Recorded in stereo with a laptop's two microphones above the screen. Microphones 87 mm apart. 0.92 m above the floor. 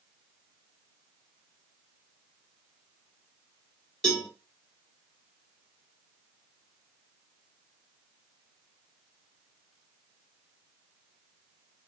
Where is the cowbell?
10° left (ahead or behind), 1.5 m.